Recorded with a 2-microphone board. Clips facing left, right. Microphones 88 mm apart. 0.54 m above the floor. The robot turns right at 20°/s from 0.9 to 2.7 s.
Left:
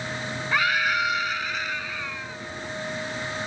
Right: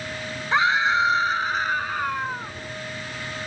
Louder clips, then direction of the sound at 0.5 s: Right 4 dB; 155° right.